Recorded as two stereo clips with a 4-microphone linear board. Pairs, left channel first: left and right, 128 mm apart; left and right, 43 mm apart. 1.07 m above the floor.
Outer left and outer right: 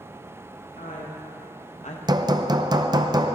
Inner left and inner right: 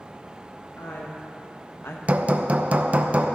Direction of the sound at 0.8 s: 75° left (ahead or behind).